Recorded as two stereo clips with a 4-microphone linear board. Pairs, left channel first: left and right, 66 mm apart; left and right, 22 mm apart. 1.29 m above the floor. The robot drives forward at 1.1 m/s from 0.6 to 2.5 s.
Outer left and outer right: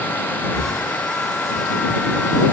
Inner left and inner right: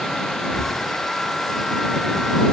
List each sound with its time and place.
0.5 s breathing: 75° left (ahead or behind), 1.7 m; by 0.8 s 70° left (ahead or behind), 1.7 m